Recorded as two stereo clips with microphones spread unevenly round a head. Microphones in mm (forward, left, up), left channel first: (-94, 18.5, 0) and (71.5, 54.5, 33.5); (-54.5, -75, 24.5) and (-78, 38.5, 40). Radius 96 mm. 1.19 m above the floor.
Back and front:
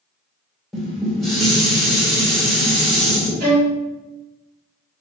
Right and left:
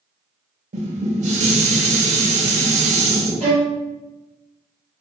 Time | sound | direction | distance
0.7 | dishes clattering | 100° left | 0.8 m
3.4 | a violin | 45° left | 1.1 m